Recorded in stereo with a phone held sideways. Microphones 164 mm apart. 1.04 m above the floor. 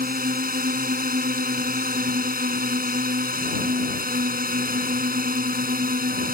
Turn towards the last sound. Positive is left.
turn(degrees=-60)  # may be behind; listen again after turning